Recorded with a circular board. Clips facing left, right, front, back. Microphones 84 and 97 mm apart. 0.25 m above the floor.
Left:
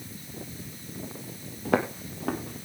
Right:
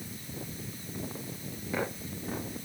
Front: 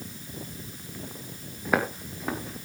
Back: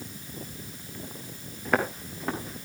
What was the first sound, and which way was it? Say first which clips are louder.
Footsteps: left 8 dB, even; 85° left.